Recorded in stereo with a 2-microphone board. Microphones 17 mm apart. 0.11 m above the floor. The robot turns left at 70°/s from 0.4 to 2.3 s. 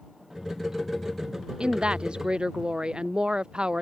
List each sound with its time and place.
1.6 s a woman speaking: 70° right; by 3.8 s 120° right